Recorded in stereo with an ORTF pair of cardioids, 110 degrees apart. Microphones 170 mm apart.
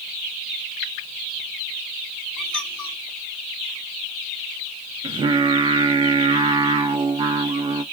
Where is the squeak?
Straight ahead, 4.5 m.